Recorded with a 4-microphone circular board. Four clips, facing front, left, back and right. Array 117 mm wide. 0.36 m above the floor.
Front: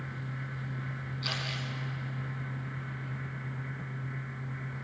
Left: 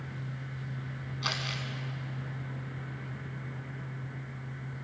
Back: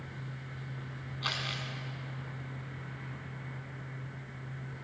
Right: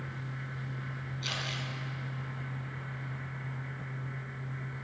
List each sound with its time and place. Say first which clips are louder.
1.2 s crumpling: left 3 dB, back 1 dB; 125° left, 4.5 m